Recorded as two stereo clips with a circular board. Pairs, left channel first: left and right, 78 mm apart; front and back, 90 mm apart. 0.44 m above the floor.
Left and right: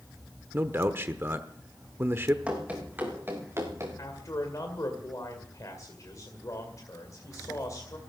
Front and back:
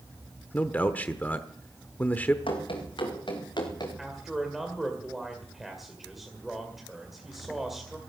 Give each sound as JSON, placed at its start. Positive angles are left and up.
{"t": 0.5, "sound": "a man speaking", "azimuth_deg": -55, "distance_m": 0.8}
{"t": 2.5, "sound": "running footsteps", "azimuth_deg": -15, "distance_m": 5.5}
{"t": 4.0, "sound": "a man speaking", "azimuth_deg": 95, "distance_m": 2.0}